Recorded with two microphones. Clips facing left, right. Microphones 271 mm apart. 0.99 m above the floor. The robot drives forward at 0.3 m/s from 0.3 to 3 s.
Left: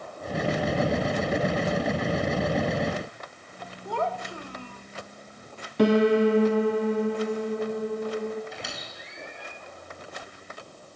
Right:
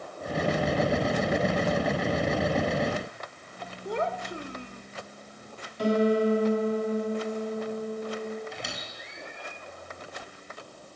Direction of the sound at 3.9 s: 20° right (ahead or behind).